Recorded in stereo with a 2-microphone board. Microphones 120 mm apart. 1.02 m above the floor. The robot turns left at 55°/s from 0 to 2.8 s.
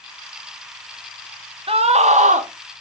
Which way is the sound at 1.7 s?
50° right.